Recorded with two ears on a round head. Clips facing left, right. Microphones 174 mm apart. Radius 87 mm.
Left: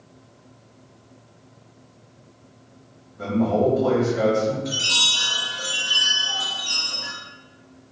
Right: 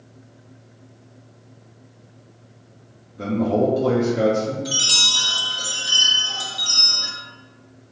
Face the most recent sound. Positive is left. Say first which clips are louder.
# even
turn(degrees=-50)  # may be behind; listen again after turning